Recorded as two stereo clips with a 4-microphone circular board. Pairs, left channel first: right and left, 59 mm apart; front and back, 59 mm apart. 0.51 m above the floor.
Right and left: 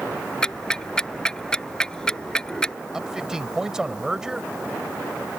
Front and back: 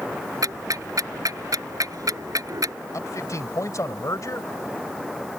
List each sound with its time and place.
0.4 s ticking: 170° right
2.9 s a man speaking: 10° left